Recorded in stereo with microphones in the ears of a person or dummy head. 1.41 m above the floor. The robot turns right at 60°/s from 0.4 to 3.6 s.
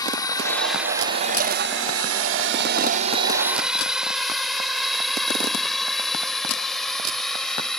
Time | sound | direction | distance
0.0 | a drone | 20° left (ahead or behind) | ?